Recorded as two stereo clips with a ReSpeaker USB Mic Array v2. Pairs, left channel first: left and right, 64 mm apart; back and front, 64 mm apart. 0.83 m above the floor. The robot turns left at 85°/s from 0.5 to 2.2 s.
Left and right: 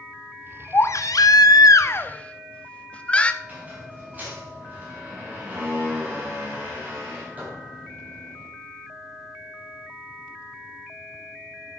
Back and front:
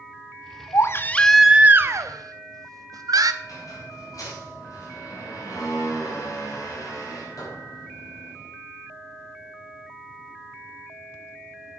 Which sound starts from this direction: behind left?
A baby crying, at 0.7 s.